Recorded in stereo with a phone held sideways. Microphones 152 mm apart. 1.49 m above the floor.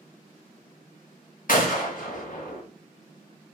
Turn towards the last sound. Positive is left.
turn(degrees=65)  # may be behind; listen again after turning